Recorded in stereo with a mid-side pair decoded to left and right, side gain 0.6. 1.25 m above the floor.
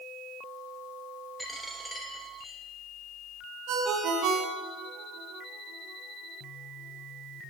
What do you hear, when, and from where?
1.4 s a dropped coin: 5° left, 2 m
3.7 s a ringtone: 70° right, 1.7 m